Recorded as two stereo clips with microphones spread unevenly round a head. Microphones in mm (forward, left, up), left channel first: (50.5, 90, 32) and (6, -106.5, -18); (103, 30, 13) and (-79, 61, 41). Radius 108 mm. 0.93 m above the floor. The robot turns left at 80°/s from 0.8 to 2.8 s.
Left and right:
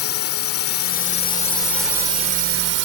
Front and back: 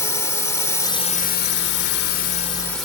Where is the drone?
65° left; by 2.9 s 95° right.